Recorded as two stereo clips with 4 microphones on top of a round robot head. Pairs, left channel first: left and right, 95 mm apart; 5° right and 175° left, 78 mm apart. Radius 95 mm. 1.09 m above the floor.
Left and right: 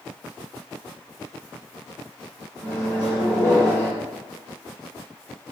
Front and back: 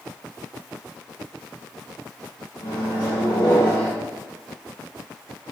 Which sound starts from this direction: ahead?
A microwave, at 2.6 s.